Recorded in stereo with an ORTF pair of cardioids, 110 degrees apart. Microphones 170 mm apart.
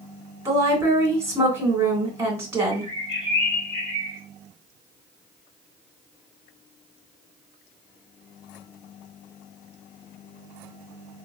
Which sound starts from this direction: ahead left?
A bird, at 2.7 s.